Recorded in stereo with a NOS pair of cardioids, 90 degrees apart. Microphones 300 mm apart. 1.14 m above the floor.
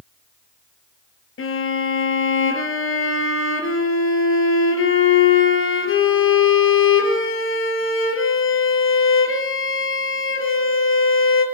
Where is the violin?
45° left, 4.5 m.